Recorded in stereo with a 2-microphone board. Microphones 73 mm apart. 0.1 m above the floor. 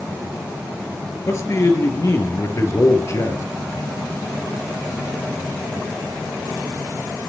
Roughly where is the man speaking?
Left.